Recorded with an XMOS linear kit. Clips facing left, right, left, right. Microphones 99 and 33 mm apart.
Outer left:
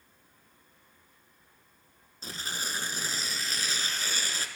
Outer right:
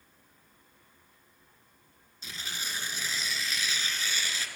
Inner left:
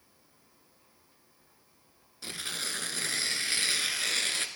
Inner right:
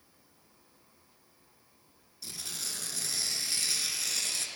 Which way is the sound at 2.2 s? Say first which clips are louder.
Outer left 3 dB, inner left 5 dB; 40° left (ahead or behind).